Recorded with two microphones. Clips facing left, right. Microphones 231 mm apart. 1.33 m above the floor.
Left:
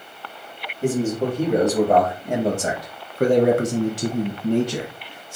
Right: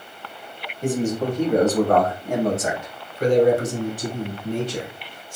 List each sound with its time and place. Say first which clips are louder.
0.8 s a man speaking: left 1 dB; 5° left (ahead or behind), 1.7 m; by 5.4 s 55° left (ahead or behind), 1.2 m